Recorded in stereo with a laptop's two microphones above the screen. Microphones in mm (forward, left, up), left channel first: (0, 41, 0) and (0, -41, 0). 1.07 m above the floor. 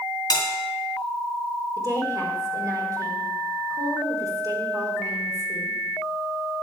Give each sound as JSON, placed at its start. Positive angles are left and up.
{"t": 0.3, "sound": "a bell", "side_deg": 45, "distance_m": 2.0}
{"t": 1.8, "sound": "a woman speaking", "side_deg": -45, "distance_m": 4.5}